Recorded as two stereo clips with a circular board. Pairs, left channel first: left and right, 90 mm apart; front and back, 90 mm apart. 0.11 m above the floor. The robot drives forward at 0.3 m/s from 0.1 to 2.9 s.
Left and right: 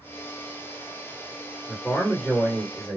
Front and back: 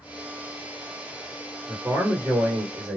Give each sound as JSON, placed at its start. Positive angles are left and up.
{"t": 1.7, "sound": "a man speaking", "azimuth_deg": 180, "distance_m": 2.5}